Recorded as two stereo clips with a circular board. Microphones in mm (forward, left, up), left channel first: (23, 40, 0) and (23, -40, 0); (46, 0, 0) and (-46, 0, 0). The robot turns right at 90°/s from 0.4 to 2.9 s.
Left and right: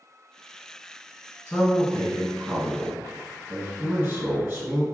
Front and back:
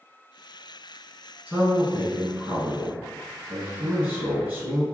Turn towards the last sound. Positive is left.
turn(degrees=-130)